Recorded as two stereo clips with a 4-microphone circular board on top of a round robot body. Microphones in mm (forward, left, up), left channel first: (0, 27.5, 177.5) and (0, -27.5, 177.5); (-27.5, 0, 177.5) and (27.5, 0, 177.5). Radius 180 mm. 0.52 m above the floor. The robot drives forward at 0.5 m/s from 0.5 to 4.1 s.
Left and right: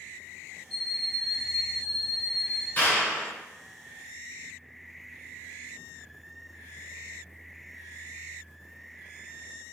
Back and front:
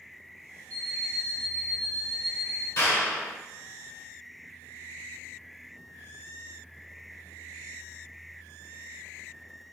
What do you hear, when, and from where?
0.7 s an alarm clock: 5° left, 1.9 m
2.8 s a clap: 145° left, 2.5 m; by 3.3 s 150° left, 2.5 m